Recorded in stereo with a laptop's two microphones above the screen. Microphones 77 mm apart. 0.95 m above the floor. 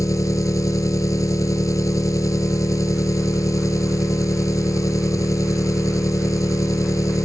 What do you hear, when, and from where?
0.0 s an engine running: 45° left (ahead or behind)